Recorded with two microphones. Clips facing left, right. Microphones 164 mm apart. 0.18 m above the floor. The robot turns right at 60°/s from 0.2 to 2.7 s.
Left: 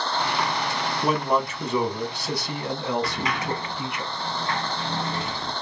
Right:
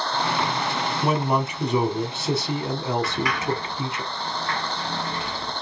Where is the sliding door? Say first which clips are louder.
Right 2 dB; 25° left (ahead or behind), 1.7 m.